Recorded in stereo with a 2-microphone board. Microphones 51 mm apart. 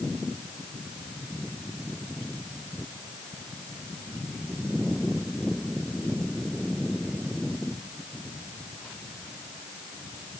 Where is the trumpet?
I don't hear a trumpet.